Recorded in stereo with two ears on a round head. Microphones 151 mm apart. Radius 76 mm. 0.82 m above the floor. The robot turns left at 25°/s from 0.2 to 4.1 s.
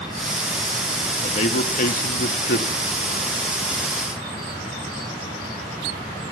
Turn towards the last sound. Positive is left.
turn(degrees=50)